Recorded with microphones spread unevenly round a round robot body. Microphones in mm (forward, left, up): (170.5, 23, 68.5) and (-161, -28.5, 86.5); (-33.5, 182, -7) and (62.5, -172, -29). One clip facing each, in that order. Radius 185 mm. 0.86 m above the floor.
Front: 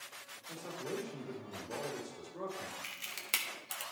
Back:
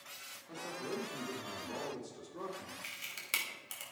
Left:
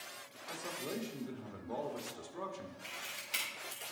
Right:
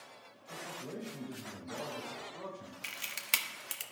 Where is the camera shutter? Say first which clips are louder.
Front 3 dB, even; 75° right, 1.1 m.